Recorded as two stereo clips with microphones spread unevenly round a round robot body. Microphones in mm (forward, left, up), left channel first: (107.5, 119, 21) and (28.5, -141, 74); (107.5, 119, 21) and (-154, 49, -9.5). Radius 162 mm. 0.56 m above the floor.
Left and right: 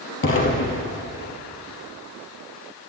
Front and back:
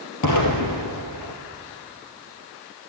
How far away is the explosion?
About 2.5 m.